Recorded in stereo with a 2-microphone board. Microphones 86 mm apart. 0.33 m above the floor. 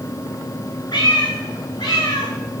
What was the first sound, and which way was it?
A cat meowing, 70° left (ahead or behind).